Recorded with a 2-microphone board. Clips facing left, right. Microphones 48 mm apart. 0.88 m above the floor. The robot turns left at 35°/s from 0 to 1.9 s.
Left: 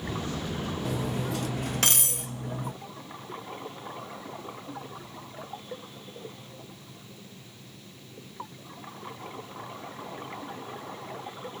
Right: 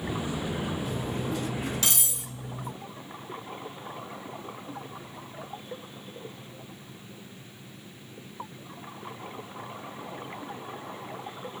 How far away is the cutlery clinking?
About 0.5 m.